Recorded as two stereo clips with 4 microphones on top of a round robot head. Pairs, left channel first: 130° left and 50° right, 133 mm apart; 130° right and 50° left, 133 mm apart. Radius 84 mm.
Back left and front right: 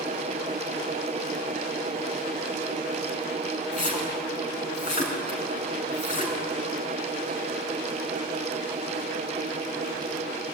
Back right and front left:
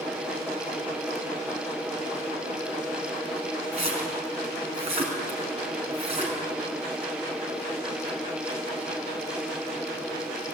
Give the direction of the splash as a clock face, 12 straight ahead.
9 o'clock.